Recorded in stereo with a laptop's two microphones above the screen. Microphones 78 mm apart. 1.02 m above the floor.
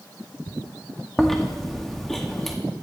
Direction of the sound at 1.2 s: 5° left (ahead or behind).